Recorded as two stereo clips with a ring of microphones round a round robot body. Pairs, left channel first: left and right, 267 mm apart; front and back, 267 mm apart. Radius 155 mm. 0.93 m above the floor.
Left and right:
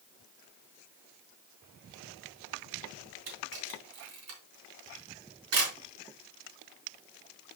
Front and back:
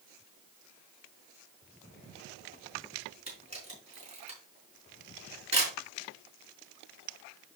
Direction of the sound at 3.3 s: 115° right.